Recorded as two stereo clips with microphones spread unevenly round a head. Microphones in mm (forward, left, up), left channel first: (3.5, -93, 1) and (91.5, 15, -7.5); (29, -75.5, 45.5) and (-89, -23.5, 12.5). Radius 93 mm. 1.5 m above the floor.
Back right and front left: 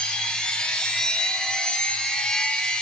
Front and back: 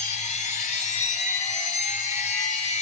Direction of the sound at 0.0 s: 45° right.